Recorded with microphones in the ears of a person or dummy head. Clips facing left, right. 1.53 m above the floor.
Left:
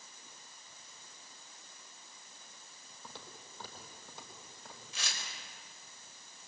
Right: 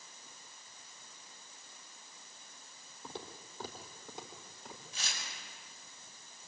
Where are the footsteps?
20° right (ahead or behind), 3 m; by 4.8 s 15° right (ahead or behind), 5.5 m.